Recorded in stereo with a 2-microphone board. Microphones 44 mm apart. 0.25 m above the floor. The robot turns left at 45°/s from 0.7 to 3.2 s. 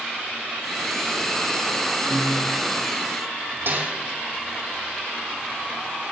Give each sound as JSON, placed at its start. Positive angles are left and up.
{"t": 2.1, "sound": "a piano", "side_deg": 65, "distance_m": 7.5}
{"t": 3.7, "sound": "a snare drum", "side_deg": -55, "distance_m": 5.0}